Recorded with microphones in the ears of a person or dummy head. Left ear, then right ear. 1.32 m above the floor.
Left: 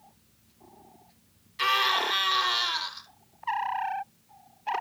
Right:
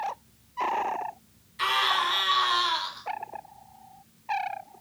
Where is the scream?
15° left (ahead or behind), 4 m.